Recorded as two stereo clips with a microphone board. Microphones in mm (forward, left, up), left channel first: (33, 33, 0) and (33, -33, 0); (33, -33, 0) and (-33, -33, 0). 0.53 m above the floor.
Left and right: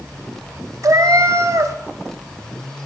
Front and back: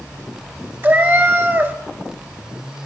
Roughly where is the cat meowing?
Behind right.